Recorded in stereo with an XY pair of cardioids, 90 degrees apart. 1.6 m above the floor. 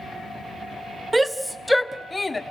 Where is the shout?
20° right, 0.8 m; by 2.4 s 25° left, 1.1 m.